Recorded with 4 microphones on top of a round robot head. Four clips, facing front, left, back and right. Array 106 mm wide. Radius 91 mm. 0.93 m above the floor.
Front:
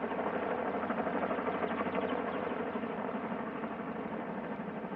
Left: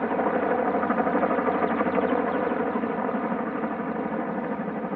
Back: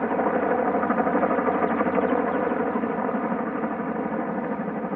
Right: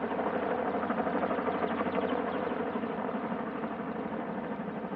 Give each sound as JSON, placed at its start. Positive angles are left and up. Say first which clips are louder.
{"t": 0.0, "sound": "a helicopter", "louder": "left 7 dB, back 12 dB", "azimuth_deg": 145}